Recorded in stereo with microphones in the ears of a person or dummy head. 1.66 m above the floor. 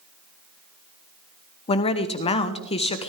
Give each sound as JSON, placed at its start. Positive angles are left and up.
{"t": 1.7, "sound": "a woman speaking", "side_deg": 35, "distance_m": 0.9}